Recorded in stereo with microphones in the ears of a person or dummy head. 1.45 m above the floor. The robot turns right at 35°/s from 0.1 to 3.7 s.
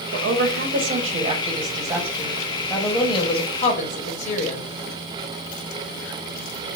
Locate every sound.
0.1 s a woman speaking: 80° right, 0.9 m; by 4.6 s 45° left, 0.9 m